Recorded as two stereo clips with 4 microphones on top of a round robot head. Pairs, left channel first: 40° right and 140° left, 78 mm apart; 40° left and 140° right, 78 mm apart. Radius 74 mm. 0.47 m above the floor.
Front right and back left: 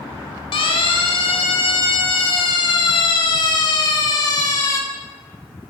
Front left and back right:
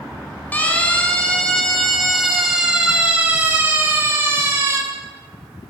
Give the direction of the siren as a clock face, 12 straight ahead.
1 o'clock.